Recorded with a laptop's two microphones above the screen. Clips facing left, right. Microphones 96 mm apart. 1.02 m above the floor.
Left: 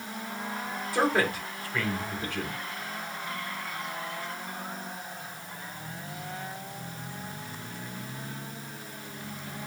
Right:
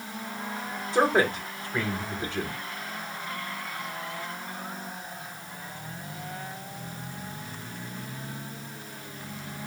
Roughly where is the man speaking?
Right.